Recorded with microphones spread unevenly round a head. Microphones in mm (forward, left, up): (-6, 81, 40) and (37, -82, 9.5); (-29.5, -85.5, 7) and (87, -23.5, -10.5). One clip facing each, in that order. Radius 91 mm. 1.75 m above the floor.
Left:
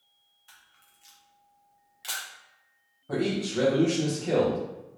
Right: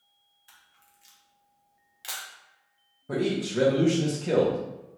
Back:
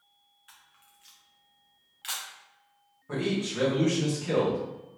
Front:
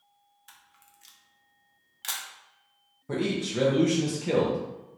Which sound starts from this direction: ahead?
A man speaking, at 3.1 s.